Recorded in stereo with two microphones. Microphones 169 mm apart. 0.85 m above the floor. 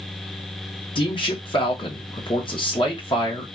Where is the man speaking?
30° left (ahead or behind), 1.2 m.